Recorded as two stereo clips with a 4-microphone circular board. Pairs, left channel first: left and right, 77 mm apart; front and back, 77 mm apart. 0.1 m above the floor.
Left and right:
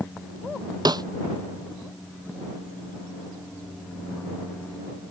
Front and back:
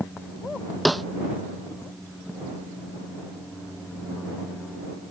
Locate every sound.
0.8 s a snare drum: 90° right